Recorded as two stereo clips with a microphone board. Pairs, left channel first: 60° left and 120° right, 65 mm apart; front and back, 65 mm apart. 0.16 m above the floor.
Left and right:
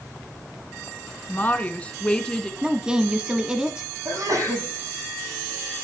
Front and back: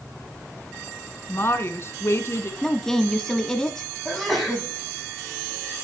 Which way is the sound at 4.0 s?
90° right.